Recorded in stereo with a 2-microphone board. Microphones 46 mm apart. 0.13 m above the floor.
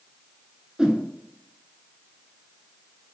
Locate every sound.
0.8 s a whoosh: 15° right (ahead or behind), 0.5 m